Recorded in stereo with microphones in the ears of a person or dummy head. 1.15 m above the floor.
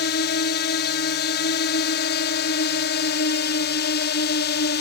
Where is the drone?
55° left (ahead or behind).